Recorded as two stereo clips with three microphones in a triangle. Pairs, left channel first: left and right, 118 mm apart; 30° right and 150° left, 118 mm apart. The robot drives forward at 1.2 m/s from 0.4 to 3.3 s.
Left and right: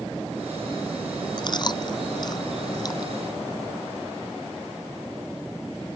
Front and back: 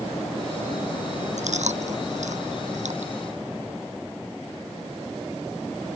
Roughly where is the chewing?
Behind left.